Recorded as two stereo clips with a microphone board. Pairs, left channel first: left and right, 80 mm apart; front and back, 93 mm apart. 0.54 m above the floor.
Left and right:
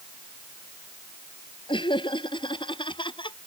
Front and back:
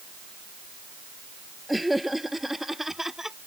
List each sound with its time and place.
1.7 s laughter: 90° left; by 3.4 s 95° left